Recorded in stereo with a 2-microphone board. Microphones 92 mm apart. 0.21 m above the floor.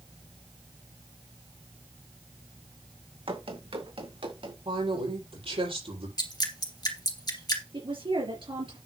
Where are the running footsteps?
75° right (ahead or behind), 2.5 m.